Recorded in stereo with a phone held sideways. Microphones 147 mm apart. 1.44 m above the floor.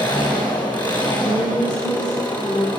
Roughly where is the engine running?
Left.